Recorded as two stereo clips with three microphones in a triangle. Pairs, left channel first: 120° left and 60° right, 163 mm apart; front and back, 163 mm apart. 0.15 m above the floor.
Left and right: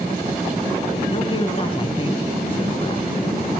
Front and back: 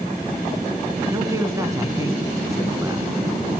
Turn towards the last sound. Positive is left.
turn(degrees=125)